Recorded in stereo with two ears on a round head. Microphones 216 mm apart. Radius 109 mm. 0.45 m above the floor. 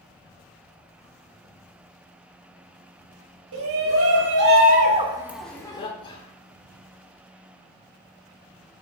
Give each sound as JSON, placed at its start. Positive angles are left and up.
{"t": 3.5, "sound": "a shout", "side_deg": -60, "distance_m": 3.0}
{"t": 6.0, "sound": "whispering", "side_deg": 20, "distance_m": 1.0}